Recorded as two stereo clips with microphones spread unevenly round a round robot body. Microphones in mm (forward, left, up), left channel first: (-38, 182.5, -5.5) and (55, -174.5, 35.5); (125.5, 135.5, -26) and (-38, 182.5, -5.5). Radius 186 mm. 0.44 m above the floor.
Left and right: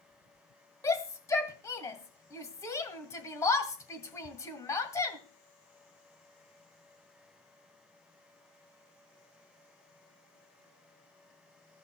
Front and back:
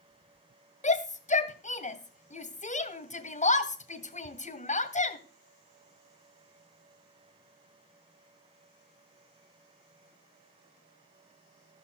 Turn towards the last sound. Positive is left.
turn(degrees=25)